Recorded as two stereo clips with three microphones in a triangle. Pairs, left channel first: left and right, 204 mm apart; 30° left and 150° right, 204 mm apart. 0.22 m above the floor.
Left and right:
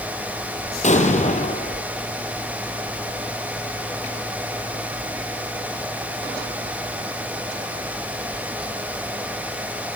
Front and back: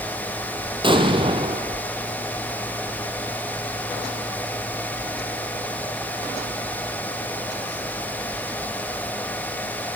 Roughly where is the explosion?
Behind left.